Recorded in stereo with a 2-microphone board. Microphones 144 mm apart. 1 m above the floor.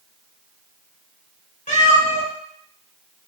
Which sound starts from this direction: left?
A cat meowing, at 1.7 s.